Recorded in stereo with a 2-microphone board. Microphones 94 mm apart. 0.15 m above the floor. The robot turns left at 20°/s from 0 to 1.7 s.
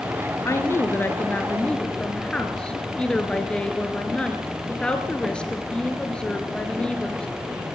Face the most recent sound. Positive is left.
turn(degrees=10)  # may be behind; listen again after turning